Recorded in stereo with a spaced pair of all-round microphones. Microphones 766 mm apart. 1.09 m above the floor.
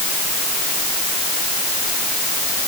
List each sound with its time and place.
Only background noise.